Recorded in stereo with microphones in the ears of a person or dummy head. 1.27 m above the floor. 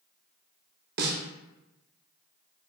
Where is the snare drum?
50° right (ahead or behind), 0.6 m.